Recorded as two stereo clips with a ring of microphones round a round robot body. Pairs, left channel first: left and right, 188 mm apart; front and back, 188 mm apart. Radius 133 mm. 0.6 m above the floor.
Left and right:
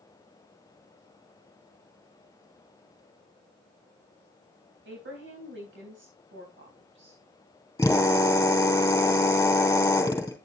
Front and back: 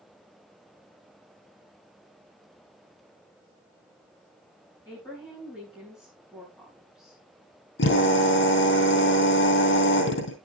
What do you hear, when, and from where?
4.8 s a woman speaking: 80° right, 3.5 m
7.8 s a drill: 15° left, 4 m